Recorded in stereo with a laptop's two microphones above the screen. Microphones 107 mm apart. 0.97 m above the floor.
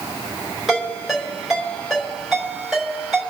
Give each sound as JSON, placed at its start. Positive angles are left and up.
{"t": 0.7, "sound": "a ringtone", "side_deg": -5, "distance_m": 5.0}